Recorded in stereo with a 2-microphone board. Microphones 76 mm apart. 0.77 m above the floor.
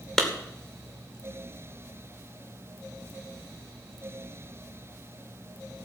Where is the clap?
10° left (ahead or behind), 2 m.